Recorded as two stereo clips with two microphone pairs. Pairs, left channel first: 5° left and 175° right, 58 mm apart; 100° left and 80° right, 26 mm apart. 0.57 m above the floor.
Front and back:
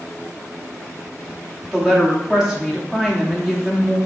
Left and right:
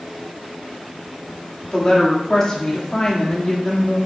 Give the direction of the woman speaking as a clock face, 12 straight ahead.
8 o'clock.